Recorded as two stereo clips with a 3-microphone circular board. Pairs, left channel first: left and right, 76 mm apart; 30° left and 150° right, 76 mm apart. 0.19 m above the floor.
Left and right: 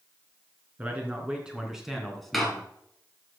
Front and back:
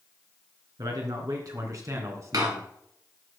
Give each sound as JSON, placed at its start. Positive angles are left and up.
{"t": 0.8, "sound": "a man speaking", "azimuth_deg": -155, "distance_m": 3.0}
{"t": 2.3, "sound": "a door slam", "azimuth_deg": 180, "distance_m": 2.0}